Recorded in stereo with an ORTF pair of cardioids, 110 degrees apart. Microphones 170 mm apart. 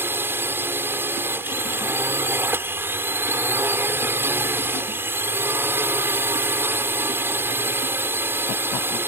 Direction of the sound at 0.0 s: 15° right.